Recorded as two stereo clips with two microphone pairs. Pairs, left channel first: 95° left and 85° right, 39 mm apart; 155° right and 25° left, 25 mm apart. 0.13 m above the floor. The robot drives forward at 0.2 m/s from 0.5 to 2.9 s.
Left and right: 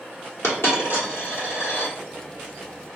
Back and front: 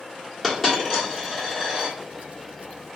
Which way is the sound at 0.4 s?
115° left.